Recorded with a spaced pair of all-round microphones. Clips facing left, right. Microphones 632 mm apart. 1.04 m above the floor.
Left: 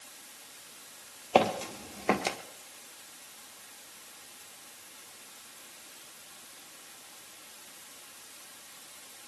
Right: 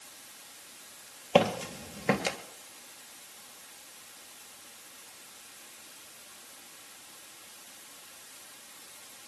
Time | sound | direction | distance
1.4 | footsteps | 40° right (ahead or behind) | 1.8 m